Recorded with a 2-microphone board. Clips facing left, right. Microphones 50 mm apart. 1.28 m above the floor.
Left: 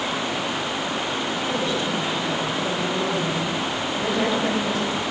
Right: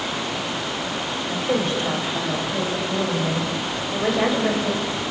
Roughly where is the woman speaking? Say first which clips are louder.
Right 5 dB; right.